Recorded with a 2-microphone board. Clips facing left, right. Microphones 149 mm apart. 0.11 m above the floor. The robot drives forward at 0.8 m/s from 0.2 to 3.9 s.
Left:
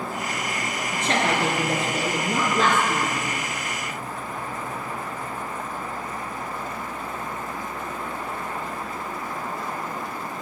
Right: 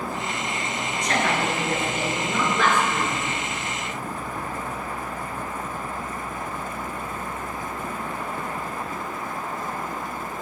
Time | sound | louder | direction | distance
0.9 | a woman speaking | left 1 dB | 30° left (ahead or behind) | 2 m